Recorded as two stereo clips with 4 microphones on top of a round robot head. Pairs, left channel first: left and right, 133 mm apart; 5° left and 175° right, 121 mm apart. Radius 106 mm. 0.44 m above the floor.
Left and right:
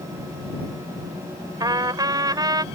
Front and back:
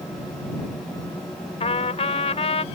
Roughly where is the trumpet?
Ahead right.